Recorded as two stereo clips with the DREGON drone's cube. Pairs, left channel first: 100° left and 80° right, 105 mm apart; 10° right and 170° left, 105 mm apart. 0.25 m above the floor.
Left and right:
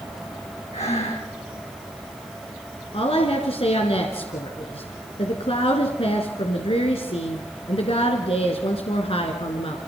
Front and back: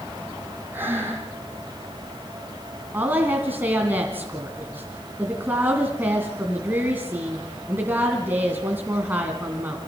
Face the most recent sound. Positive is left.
turn(degrees=100)